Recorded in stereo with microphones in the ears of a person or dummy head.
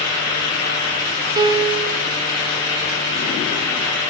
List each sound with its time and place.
1.4 s a piano: 20° right (ahead or behind), 0.9 m